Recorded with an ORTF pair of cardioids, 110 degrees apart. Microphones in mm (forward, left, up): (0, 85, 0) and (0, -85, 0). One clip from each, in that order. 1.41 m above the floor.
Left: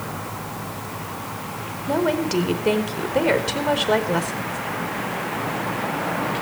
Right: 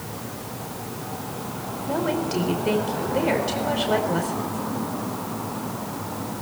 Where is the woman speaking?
30° left, 4.5 m.